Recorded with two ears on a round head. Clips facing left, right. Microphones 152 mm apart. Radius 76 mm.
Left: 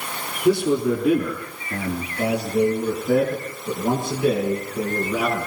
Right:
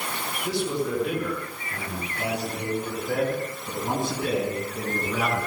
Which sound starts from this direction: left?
A man speaking, at 0.5 s.